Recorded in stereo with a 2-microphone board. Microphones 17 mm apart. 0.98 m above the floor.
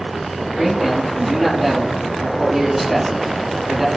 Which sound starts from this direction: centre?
A man speaking, at 0.6 s.